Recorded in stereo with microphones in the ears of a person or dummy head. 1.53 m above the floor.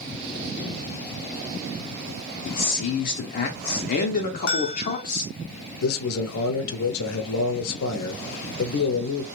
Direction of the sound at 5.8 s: 70° left (ahead or behind).